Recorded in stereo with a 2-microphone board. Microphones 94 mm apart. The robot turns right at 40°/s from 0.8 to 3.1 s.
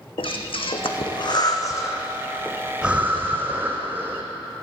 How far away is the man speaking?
No man speaking in this recording.